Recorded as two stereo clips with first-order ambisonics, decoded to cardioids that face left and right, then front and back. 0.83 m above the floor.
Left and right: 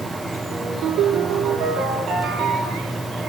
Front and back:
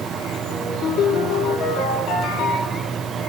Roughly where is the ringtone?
Ahead right.